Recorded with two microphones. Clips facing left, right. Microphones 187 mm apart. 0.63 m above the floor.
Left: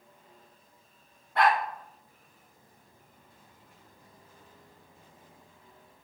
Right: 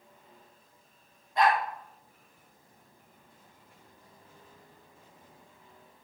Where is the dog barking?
75° left (ahead or behind), 2.5 m.